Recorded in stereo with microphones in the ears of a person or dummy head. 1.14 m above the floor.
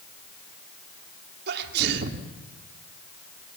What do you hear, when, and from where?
1.5 s a sneeze: 65° right (ahead or behind), 2 m